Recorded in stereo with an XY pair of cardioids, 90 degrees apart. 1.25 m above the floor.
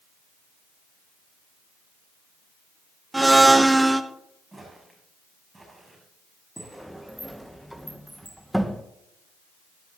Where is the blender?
15° right, 0.8 m.